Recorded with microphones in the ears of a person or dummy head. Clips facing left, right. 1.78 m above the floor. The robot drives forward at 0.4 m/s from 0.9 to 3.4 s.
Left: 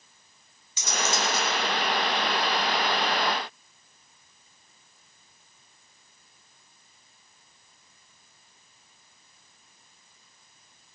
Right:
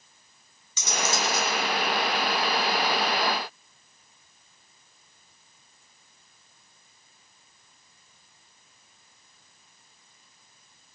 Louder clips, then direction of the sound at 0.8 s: Even; 75° right (ahead or behind).